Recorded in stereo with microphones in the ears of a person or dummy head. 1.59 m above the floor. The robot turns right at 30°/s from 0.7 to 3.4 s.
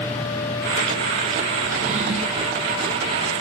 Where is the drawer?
45° right (ahead or behind), 1.6 m; by 2.5 s 25° right (ahead or behind), 1.6 m.